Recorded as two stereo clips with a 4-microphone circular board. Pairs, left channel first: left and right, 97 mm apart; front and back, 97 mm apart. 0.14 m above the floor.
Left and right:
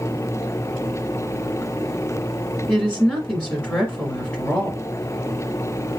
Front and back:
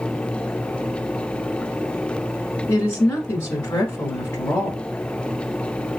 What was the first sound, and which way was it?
A woman speaking, 20° left.